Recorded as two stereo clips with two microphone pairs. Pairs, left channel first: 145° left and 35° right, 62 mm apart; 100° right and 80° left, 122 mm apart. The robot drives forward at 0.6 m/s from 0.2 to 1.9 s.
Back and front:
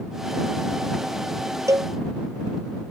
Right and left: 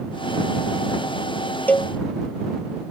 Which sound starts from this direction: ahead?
A cowbell, at 1.7 s.